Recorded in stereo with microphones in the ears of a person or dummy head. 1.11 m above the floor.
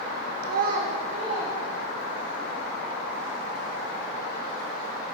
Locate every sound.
0.4 s a child speaking: 50° right (ahead or behind), 0.6 m; by 2.4 s 35° right (ahead or behind), 2.5 m